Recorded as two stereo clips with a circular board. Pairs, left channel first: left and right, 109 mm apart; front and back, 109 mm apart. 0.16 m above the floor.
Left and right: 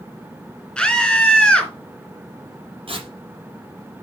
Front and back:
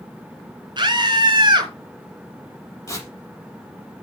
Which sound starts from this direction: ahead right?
Tearing paper, at 2.9 s.